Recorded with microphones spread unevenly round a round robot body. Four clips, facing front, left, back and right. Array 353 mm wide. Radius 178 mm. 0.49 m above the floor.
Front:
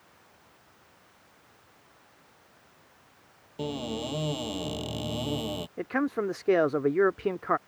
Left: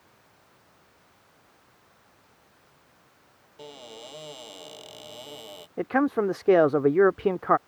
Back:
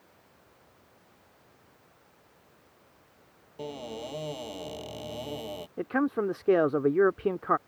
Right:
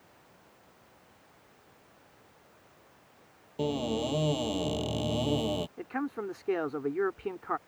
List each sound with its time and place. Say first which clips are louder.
3.6 s a cupboard door: right 13 dB, front 5 dB; 55° right
5.8 s a man speaking: left 11 dB, back 2 dB; 100° left